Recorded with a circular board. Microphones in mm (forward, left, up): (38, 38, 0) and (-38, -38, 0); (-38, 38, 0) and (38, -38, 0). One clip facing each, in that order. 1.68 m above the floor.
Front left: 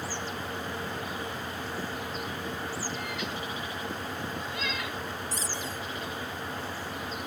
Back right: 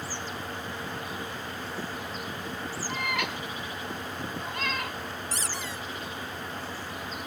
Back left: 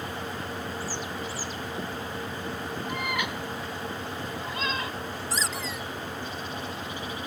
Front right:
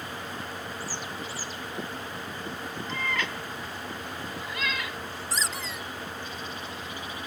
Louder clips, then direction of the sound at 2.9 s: Back right 3 dB, even; 150° right.